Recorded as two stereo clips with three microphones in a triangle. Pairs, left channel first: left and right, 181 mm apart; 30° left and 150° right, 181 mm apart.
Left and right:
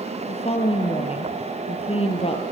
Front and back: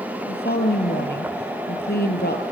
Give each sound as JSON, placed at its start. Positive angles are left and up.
{"t": 0.3, "sound": "a woman speaking", "azimuth_deg": 40, "distance_m": 2.5}